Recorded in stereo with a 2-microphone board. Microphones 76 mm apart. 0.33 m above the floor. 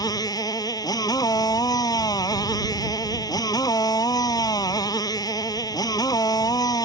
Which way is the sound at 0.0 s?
60° left (ahead or behind).